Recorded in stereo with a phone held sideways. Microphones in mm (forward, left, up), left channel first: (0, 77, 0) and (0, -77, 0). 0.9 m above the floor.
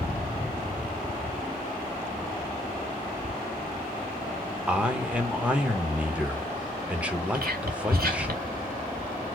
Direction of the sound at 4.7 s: 10° right (ahead or behind).